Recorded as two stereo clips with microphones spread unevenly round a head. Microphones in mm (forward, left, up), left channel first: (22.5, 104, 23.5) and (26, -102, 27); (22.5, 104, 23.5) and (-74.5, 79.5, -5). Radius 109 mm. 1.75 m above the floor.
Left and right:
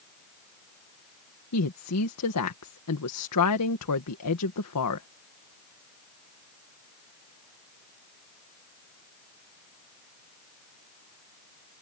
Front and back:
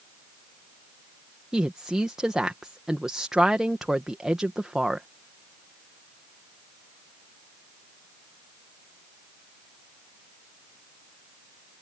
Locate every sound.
1.5 s a woman speaking: 105° left